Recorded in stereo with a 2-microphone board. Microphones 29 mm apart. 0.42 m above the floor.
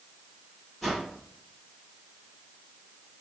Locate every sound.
0.8 s a whoosh: centre (ahead or behind), 1.9 m